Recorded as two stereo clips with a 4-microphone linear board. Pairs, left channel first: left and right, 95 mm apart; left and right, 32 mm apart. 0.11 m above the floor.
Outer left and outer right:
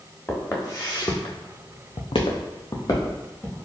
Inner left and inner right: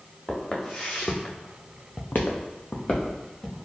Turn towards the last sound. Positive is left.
turn(degrees=25)  # may be behind; listen again after turning